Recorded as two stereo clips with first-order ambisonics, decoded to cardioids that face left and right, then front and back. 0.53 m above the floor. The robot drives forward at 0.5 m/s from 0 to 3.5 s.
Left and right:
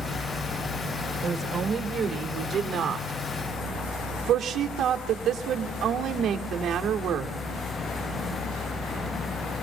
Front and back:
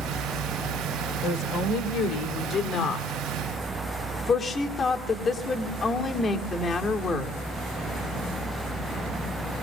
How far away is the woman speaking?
About 2 m.